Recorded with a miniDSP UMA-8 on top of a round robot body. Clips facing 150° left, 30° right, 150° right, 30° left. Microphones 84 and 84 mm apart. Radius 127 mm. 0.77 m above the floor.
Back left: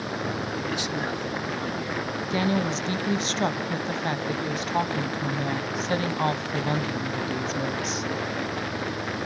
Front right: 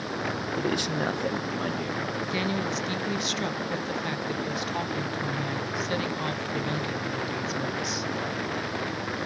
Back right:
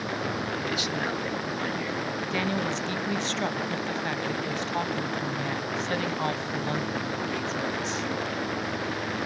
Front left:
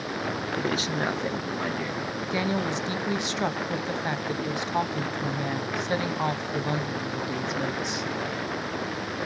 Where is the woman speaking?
100° left, 0.8 m.